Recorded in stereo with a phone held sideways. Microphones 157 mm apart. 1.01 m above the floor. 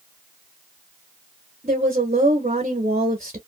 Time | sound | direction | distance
1.6 | a woman speaking | 50° right (ahead or behind) | 0.9 m